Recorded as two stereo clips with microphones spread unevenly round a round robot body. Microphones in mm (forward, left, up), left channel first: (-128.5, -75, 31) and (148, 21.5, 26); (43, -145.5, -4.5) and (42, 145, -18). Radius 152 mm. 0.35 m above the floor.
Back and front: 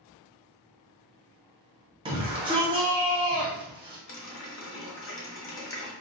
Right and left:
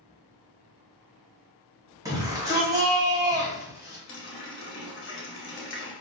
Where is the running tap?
130° right, 0.8 m.